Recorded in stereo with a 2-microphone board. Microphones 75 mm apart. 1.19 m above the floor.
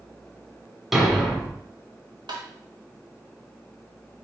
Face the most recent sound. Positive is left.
turn(degrees=-80)